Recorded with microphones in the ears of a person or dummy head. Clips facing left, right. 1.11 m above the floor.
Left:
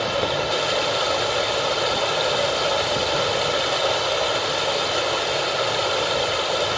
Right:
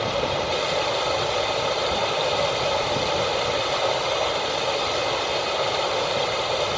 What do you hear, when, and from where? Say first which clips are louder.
0.0 s running water: left 1 dB; 5° left (ahead or behind), 1.1 m